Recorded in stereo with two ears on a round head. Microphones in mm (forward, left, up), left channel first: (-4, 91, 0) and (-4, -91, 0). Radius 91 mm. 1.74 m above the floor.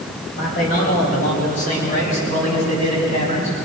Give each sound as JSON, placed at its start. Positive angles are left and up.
{"t": 0.3, "sound": "a man speaking", "side_deg": 45, "distance_m": 10.0}